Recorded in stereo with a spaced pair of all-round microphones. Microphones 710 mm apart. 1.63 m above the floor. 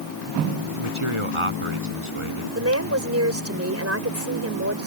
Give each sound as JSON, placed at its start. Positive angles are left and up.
{"t": 0.7, "sound": "a man speaking", "side_deg": -45}
{"t": 2.5, "sound": "a woman speaking", "side_deg": -20}